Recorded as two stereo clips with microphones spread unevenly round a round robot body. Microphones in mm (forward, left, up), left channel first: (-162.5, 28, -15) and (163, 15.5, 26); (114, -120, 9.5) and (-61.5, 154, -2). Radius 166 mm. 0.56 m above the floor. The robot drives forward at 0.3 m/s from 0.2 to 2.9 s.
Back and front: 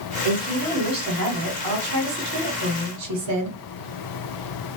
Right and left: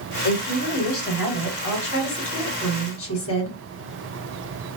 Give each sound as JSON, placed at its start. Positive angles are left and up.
{"t": 0.2, "sound": "a woman speaking", "azimuth_deg": -15, "distance_m": 1.9}